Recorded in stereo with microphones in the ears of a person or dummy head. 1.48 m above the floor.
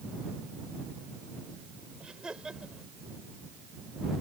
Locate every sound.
2.0 s laughter: 5° right (ahead or behind)